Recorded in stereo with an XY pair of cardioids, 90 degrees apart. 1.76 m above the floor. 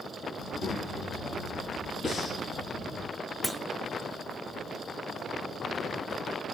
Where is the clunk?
25° right, 0.6 m.